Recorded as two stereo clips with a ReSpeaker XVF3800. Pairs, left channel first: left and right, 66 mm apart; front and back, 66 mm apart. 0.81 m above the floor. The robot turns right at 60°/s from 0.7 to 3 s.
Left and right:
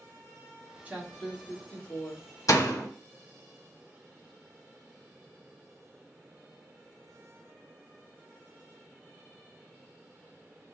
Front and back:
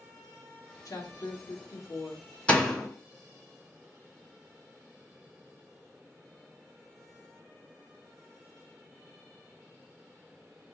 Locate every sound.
0.8 s a woman speaking: 25° right, 1.2 m; by 2.3 s 60° left, 1.2 m
2.5 s a door slam: 70° left, 1.1 m; by 2.9 s 95° left, 1.1 m